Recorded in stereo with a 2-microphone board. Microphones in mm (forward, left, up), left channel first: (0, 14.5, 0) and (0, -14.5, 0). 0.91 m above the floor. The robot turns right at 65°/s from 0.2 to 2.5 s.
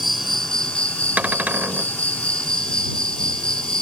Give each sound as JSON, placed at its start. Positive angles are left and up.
{"t": 0.0, "sound": "an insect", "azimuth_deg": 0}
{"t": 1.2, "sound": "a cupboard door", "azimuth_deg": -120}